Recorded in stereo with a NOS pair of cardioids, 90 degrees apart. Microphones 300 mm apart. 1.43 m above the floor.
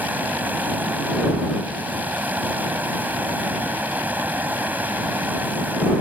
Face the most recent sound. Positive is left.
turn(degrees=-5)